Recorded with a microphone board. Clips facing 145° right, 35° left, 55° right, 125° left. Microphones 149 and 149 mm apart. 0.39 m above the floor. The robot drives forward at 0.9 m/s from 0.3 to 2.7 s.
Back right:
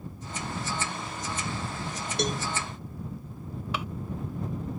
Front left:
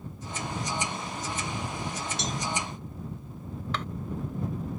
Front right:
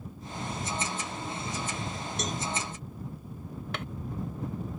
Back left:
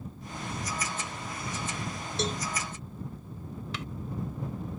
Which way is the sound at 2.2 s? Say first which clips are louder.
Back right 8 dB, back left 4 dB; 175° right.